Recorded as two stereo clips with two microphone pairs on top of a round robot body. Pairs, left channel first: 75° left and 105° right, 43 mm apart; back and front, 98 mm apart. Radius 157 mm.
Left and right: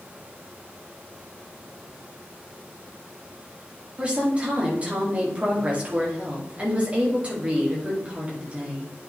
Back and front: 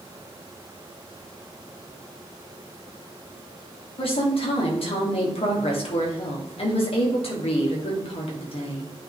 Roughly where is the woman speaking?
Behind.